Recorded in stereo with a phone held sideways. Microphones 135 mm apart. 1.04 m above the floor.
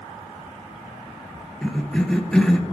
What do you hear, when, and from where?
1.6 s a cough: 5° left (ahead or behind), 0.7 m